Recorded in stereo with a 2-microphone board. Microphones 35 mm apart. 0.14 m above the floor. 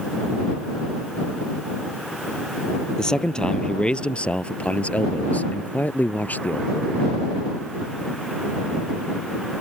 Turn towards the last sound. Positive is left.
turn(degrees=60)  # may be behind; listen again after turning